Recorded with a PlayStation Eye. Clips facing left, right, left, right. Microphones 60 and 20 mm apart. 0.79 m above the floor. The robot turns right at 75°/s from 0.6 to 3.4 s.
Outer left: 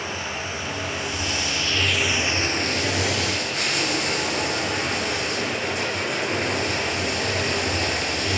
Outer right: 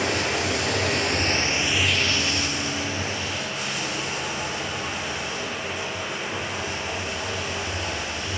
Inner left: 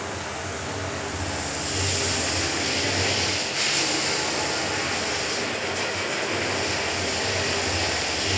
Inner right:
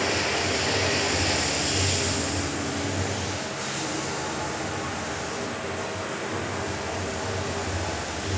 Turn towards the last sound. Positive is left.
turn(degrees=110)